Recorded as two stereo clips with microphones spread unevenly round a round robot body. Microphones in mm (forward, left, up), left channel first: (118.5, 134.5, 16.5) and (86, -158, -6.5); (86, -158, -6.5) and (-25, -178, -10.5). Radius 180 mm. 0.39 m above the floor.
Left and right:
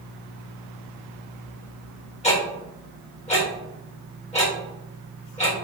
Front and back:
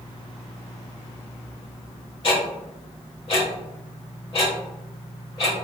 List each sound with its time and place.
2.2 s ticking: 20° left, 1.5 m